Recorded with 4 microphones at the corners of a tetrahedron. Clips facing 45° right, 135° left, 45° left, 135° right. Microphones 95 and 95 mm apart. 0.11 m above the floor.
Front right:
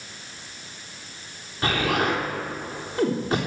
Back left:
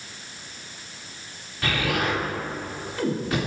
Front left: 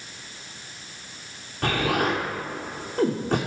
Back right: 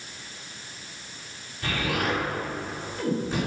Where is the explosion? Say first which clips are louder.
Front right 2 dB, front left 4 dB; 20° left, 2.5 m.